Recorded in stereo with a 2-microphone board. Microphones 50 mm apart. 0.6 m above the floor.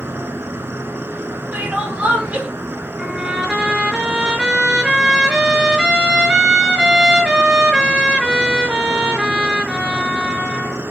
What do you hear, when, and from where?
0.0 s an insect: 50° right (ahead or behind), 0.7 m
1.5 s crying: 30° right (ahead or behind), 3.5 m
3.0 s a trumpet: 15° right (ahead or behind), 5 m